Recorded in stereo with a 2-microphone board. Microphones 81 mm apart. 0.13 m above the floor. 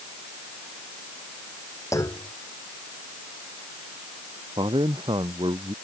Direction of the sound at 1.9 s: 40° left (ahead or behind).